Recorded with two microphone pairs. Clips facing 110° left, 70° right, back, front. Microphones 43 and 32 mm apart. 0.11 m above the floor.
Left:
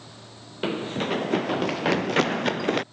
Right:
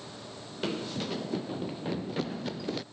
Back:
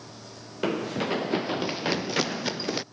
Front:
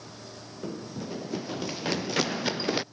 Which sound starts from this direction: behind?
Running footsteps, at 0.6 s.